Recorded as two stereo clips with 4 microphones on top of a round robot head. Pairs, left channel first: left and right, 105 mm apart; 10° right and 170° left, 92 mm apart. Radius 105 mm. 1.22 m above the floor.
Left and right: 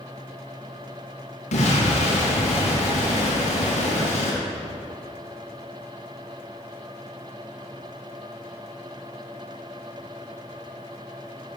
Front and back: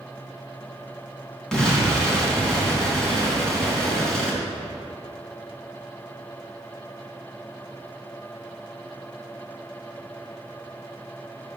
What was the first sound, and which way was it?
An explosion, 75° left.